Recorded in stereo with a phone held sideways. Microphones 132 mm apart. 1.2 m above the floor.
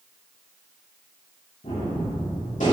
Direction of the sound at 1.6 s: 75° left (ahead or behind).